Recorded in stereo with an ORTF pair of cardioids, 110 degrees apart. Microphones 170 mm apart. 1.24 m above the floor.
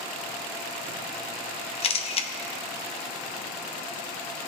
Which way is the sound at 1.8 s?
35° left.